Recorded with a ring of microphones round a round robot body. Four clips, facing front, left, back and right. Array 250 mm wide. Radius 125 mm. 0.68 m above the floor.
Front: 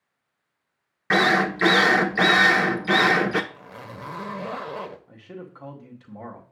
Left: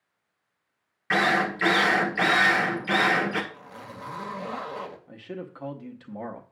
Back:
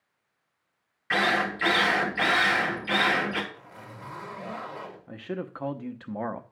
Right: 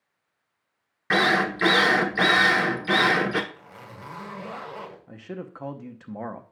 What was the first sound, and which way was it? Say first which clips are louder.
A drill: right 1 dB, front 5 dB; 25° right.